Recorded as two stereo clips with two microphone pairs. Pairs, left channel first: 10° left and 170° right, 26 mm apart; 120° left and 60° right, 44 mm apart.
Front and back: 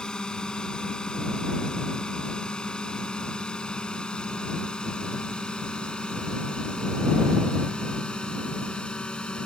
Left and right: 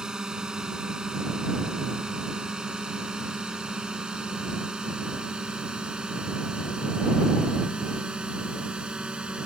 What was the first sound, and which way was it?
A drone, straight ahead.